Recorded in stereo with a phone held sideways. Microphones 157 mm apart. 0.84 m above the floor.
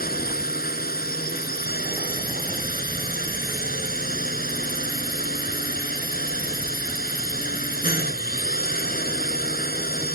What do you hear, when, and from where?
0.0 s a drone: 75° left (ahead or behind)